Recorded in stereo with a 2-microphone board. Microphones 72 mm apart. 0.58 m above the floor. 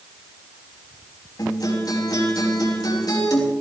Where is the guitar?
70° left (ahead or behind), 5.5 m.